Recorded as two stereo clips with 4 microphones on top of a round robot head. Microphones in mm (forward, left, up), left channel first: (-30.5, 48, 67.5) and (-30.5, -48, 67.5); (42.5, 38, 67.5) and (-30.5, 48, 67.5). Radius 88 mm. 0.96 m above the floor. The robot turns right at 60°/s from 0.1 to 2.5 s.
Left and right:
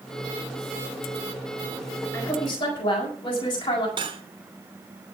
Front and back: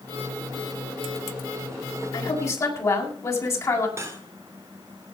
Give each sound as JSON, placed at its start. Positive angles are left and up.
{"t": 2.1, "sound": "a woman speaking", "azimuth_deg": 20, "distance_m": 7.5}
{"t": 4.0, "sound": "cutlery clinking", "azimuth_deg": -125, "distance_m": 2.0}